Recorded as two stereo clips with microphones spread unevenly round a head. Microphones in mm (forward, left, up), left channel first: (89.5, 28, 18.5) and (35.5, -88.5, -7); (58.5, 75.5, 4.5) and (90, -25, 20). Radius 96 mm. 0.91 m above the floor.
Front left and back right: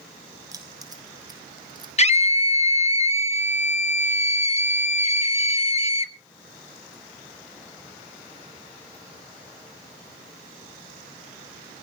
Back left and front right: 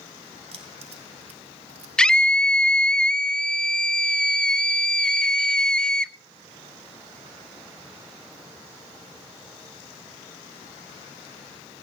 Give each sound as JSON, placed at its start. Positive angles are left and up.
{"t": 0.5, "sound": "keys jangling", "azimuth_deg": -50, "distance_m": 3.5}
{"t": 2.0, "sound": "a scream", "azimuth_deg": 25, "distance_m": 1.6}